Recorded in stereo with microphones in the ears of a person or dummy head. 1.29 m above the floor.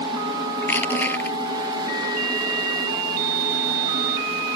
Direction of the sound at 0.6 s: 10° left (ahead or behind).